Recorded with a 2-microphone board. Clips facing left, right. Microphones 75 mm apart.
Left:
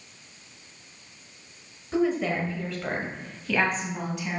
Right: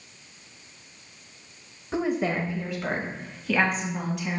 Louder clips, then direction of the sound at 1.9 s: Left 1 dB; 25° right (ahead or behind).